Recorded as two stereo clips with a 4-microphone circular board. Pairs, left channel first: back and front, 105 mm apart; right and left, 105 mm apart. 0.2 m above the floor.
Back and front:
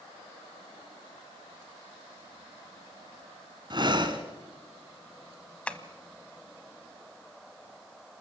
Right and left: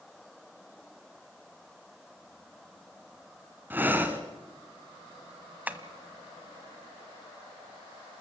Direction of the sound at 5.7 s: 125° left.